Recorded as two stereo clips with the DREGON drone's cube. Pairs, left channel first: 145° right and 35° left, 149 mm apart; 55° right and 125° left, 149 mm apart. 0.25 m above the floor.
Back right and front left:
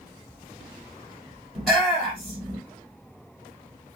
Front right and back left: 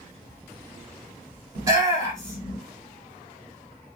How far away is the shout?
About 1.6 m.